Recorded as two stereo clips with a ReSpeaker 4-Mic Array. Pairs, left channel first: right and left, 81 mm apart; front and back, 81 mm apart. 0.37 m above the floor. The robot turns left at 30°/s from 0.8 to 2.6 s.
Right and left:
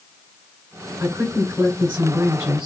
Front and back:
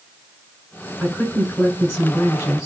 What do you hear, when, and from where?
1.0 s a woman speaking: 60° left, 1.8 m; by 2.7 s 15° left, 1.8 m